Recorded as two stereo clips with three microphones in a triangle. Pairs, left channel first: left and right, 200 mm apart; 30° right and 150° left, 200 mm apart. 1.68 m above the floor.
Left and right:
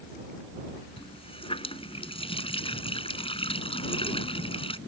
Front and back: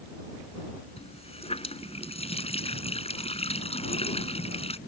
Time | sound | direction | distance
1.0 | a running tap | 30° left | ?